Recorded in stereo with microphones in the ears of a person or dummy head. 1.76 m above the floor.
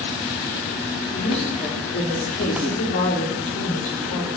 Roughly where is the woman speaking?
Left.